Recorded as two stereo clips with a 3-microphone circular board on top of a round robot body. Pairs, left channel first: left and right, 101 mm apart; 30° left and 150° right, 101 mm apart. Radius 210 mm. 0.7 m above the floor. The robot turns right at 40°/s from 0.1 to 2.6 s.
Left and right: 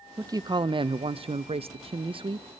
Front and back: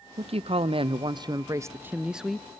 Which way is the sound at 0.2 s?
145° right.